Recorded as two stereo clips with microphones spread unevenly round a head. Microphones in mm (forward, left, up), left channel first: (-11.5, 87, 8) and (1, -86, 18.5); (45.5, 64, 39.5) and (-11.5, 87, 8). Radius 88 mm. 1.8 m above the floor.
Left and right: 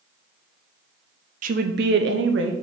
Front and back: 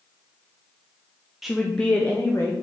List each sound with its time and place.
1.4 s a woman speaking: 85° right, 0.5 m; by 2.5 s 80° right, 1.1 m